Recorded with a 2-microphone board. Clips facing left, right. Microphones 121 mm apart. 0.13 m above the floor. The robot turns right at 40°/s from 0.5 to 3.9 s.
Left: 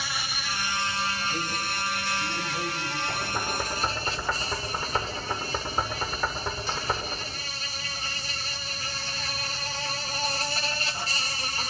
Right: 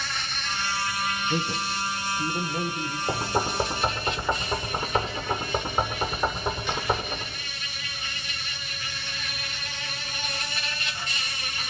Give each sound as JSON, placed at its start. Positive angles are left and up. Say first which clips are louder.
{"t": 0.0, "sound": "an insect", "louder": "even", "azimuth_deg": 10, "distance_m": 2.5}
{"t": 1.3, "sound": "a man speaking", "louder": "right 3 dB", "azimuth_deg": -85, "distance_m": 5.0}
{"t": 3.1, "sound": "knocking", "louder": "right 8 dB", "side_deg": -50, "distance_m": 6.5}